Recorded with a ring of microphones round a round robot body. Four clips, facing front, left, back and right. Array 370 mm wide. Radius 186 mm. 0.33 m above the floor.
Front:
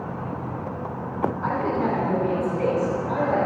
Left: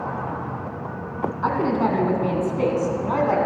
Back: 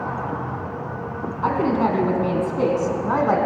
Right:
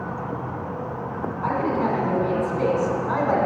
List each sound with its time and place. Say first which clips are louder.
1.4 s a woman speaking: left 2 dB, back 7 dB; 145° left, 3 m; by 3.4 s 165° left, 3 m